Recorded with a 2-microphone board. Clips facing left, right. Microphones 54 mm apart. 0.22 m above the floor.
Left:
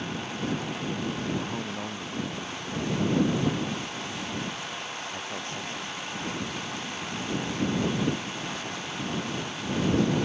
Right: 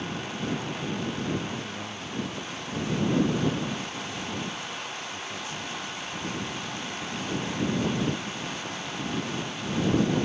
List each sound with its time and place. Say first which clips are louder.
1.3 s a man speaking: left 1 dB; 45° left (ahead or behind); by 6.6 s 55° left (ahead or behind)